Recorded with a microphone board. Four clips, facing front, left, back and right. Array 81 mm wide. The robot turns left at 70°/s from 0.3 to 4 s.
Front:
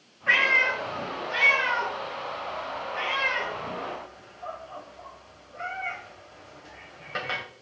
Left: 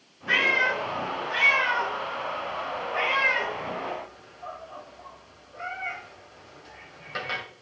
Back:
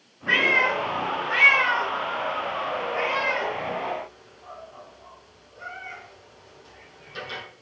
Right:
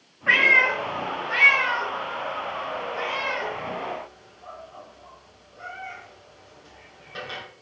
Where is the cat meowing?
80° right, 2.5 m; by 7.4 s 25° left, 2.5 m.